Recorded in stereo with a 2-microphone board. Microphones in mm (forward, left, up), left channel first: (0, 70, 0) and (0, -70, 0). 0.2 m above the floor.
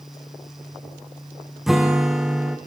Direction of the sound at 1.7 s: Centre (ahead or behind).